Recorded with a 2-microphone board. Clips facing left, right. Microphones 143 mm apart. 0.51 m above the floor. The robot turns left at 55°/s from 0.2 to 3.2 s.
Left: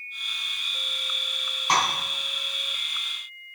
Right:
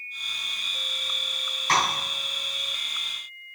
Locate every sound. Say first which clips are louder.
1.7 s tapping: even; 20° left (ahead or behind), 4 m; by 1.8 s 15° left (ahead or behind), 4 m